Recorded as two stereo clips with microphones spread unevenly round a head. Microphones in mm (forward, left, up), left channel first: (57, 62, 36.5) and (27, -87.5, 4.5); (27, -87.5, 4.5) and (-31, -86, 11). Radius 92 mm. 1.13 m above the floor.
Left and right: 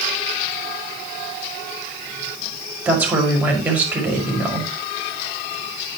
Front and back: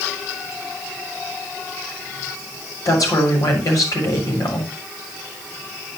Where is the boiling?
No boiling in this recording.